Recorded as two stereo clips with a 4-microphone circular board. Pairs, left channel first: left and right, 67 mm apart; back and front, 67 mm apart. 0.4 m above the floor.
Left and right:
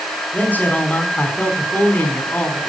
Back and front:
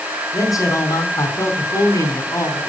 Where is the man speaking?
155° left, 4 m.